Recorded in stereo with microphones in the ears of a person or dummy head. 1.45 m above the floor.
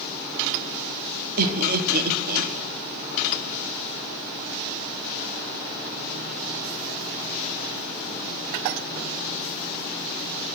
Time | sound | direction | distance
1.4 | laughter | 55° right (ahead or behind) | 1.0 m